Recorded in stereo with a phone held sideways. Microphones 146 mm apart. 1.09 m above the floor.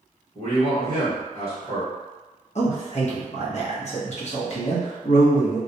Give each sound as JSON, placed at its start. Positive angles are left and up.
{"t": 0.3, "sound": "a man speaking", "side_deg": 50, "distance_m": 1.3}
{"t": 2.5, "sound": "a man speaking", "side_deg": 50, "distance_m": 0.8}